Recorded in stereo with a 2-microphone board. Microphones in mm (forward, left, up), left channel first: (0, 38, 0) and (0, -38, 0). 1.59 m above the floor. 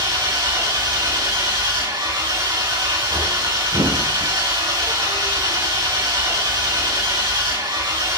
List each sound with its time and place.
0.0 s an engine running: 80° right, 5.5 m
3.7 s a thud: 65° right (ahead or behind), 7 m